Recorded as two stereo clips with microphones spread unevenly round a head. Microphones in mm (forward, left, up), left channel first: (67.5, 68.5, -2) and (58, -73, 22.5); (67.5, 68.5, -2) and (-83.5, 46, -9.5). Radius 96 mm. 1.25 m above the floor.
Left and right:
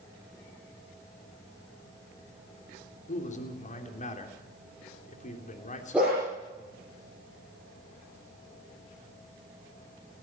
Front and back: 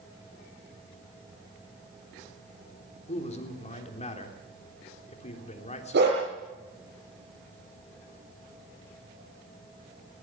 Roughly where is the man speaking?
Ahead left.